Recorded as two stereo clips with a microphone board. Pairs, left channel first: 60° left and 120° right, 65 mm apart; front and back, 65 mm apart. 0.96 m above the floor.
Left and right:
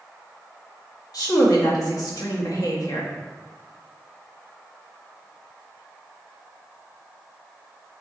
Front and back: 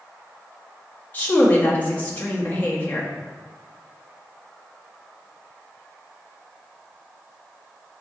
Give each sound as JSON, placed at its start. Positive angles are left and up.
{"t": 1.1, "sound": "a woman speaking", "azimuth_deg": 60, "distance_m": 1.9}